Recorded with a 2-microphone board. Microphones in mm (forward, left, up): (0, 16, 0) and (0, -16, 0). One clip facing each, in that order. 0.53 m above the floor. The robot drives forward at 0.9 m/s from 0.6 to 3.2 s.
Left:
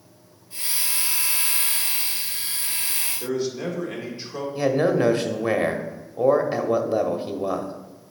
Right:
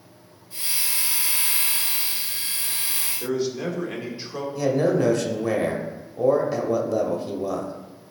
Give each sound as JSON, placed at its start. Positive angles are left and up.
{"t": 3.2, "sound": "a man speaking", "side_deg": -5, "distance_m": 1.8}
{"t": 4.5, "sound": "a man speaking", "side_deg": 30, "distance_m": 1.0}